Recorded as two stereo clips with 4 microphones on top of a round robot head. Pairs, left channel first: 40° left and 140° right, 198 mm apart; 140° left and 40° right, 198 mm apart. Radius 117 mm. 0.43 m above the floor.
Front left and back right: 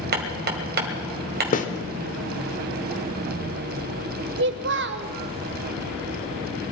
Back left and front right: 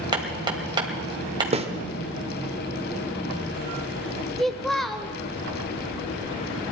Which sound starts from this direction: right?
Hammering, at 0.1 s.